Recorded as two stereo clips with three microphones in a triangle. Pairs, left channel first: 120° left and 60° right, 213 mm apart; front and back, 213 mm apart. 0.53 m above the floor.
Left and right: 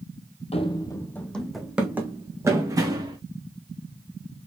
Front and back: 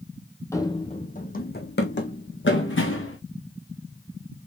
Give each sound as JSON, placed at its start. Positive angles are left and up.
{"t": 0.5, "sound": "running footsteps", "azimuth_deg": 70, "distance_m": 0.7}